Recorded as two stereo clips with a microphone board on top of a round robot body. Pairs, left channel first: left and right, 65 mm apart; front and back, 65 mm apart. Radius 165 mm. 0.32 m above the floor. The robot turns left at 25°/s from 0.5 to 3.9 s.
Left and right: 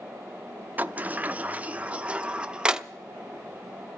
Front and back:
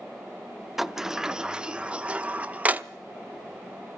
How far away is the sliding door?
About 0.9 m.